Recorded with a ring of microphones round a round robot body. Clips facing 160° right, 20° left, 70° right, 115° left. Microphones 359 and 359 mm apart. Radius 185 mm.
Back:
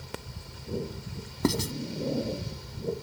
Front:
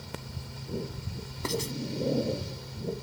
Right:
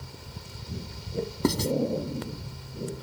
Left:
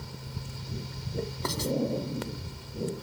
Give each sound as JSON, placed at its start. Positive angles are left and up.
{"t": 1.4, "sound": "writing", "azimuth_deg": -120}